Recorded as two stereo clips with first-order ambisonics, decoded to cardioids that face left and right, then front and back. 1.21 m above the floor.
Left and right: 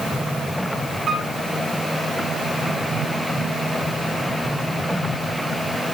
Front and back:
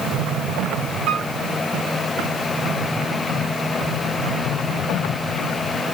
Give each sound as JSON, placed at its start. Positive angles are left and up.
{"t": 1.1, "sound": "a piano", "azimuth_deg": -150, "distance_m": 2.0}